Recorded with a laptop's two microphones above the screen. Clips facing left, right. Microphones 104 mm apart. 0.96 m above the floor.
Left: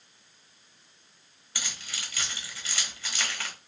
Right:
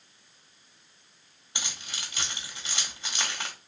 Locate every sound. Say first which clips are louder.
1.6 s keys jangling: even; 20° right (ahead or behind), 1.2 m